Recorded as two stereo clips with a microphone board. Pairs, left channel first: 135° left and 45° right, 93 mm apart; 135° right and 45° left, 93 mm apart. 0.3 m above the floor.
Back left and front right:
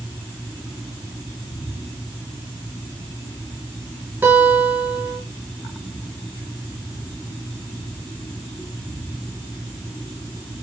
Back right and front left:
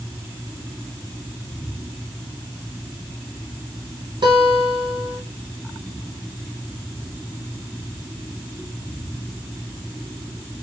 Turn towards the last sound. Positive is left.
turn(degrees=20)